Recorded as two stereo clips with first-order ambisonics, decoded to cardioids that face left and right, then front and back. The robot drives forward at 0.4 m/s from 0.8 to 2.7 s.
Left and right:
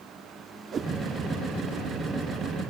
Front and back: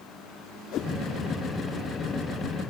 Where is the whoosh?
30° right, 0.9 m; by 0.9 s 35° right, 0.9 m.